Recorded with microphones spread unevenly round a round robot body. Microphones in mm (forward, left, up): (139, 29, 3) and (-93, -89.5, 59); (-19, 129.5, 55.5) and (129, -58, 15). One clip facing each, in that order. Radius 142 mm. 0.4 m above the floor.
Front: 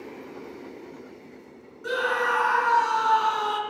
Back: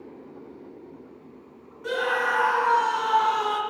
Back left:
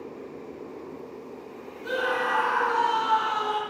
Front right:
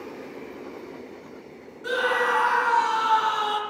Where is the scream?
40° right, 3.5 m.